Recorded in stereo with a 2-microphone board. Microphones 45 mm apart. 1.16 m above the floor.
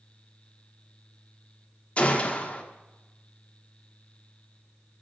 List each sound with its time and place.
2.0 s a gunshot: 30° left (ahead or behind), 1.3 m